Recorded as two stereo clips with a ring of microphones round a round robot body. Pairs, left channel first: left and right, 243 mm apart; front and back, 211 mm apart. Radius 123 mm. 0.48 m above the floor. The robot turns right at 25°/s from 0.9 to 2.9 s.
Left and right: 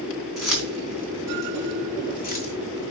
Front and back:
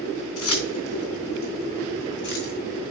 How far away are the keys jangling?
About 3 m.